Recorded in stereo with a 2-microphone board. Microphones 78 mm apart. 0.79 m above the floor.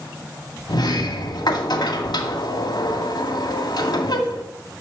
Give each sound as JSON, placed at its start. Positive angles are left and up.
{"t": 0.7, "sound": "a sliding door", "side_deg": 75, "distance_m": 2.0}